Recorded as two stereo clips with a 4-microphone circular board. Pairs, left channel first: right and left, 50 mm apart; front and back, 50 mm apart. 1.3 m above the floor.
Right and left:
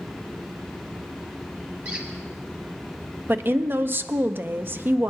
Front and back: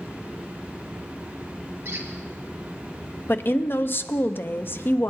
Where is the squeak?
145° left, 2 m.